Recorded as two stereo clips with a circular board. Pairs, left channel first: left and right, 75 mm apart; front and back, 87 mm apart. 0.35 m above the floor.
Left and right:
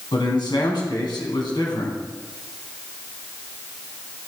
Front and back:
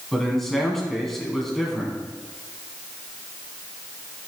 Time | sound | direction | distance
0.1 | a man speaking | 85° left | 2.5 m